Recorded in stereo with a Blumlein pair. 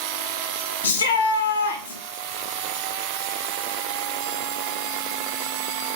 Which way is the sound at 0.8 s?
65° left.